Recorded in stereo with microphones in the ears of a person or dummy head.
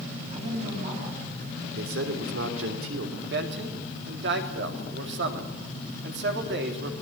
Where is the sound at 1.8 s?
80° right, 3 m.